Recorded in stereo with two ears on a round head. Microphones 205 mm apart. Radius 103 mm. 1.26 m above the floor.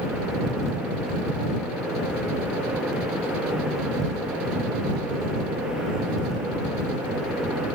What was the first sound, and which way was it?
Only background noise.